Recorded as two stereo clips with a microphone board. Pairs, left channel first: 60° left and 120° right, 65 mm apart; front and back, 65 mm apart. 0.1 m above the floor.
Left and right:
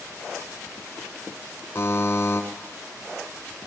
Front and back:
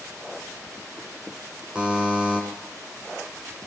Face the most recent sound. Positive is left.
turn(degrees=110)